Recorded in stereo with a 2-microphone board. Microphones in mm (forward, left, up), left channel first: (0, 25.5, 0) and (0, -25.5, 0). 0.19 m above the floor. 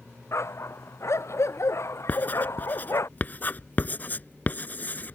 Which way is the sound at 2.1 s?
35° left (ahead or behind).